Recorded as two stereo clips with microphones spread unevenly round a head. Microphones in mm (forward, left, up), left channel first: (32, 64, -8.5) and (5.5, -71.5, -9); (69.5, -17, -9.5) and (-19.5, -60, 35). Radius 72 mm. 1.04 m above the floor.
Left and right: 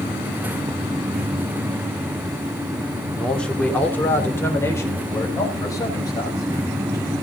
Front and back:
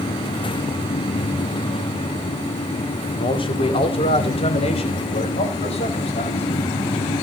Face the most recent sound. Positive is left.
turn(degrees=15)